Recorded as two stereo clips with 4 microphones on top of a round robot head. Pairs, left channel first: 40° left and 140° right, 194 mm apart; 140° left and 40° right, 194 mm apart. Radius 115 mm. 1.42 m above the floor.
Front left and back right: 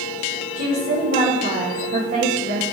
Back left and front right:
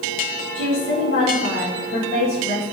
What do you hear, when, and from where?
0.6 s a woman speaking: 175° left, 2 m